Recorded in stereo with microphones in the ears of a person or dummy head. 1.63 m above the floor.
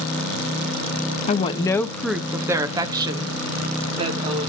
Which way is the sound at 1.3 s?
35° left (ahead or behind).